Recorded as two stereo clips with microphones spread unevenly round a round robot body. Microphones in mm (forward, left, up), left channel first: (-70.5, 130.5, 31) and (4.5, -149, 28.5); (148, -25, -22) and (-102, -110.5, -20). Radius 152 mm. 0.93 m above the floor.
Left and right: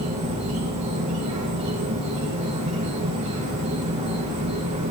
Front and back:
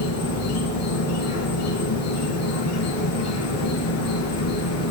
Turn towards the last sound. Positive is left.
turn(degrees=-5)